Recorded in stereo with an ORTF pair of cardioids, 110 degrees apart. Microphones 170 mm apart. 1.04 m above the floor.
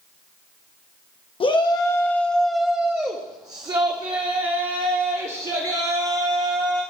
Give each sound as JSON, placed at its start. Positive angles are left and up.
{"t": 1.4, "sound": "a shout", "azimuth_deg": 30, "distance_m": 1.1}